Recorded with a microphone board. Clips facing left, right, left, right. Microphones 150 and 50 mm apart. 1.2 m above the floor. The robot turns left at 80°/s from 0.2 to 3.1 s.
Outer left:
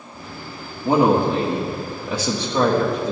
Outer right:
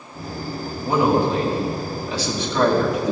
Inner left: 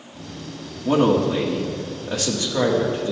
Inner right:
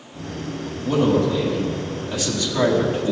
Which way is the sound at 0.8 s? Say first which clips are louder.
Outer left 2 dB, inner left 1 dB; 160° left.